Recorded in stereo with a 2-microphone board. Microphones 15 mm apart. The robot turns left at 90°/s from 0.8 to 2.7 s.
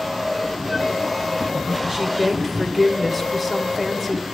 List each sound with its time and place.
1.9 s a woman speaking: 100° right, 1.4 m; by 4.2 s 170° right, 1.4 m